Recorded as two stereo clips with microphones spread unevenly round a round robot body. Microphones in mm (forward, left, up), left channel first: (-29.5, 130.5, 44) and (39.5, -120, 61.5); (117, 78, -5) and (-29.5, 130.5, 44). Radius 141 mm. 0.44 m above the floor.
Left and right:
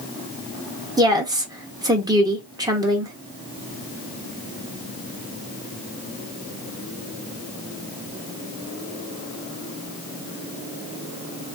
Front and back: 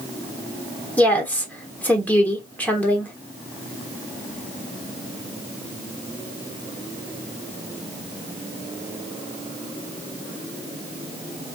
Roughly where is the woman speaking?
Ahead.